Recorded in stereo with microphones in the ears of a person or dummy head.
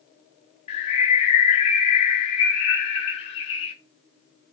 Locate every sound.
0.7 s a bird: 35° left (ahead or behind), 0.6 m